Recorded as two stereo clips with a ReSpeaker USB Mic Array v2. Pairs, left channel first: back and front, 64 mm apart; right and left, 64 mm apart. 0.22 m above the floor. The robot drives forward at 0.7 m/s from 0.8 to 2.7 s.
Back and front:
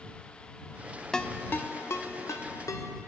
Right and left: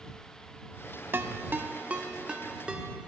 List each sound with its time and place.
1.1 s a ringtone: 105° left, 0.6 m; by 2.9 s 165° left, 1.3 m